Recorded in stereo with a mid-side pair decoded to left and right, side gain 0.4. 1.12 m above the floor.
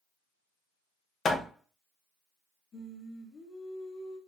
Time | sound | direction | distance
1.2 | hammering | 55° left | 0.9 m
2.7 | singing | 50° left | 2 m